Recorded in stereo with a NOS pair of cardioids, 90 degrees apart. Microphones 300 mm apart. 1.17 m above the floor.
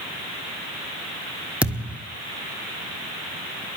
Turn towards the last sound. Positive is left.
turn(degrees=-5)